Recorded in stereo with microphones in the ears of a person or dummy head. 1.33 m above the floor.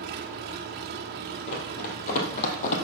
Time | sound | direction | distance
0.0 | an engine running | 50° right (ahead or behind) | 1.3 m
1.5 | running footsteps | 50° left (ahead or behind) | 1.9 m